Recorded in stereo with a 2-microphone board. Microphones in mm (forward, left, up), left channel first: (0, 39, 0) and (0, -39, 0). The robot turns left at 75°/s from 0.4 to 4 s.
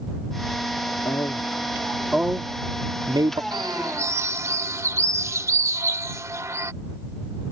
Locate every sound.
1.1 s a man speaking: 60° left (ahead or behind); by 3.4 s 60° right (ahead or behind)
3.5 s a bird: 100° right; by 6.7 s 140° right